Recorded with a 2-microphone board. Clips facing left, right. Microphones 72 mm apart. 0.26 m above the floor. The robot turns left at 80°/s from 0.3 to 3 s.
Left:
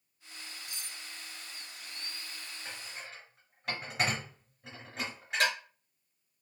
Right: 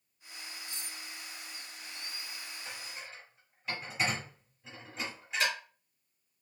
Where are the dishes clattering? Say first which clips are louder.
Left 2 dB; 35° left (ahead or behind), 3 m; by 5.5 s 60° left (ahead or behind), 3 m.